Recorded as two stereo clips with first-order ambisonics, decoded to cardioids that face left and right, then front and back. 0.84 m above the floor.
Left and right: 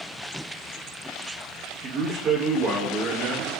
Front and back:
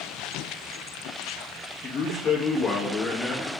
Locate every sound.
1.8 s a man speaking: 50° right, 1.2 m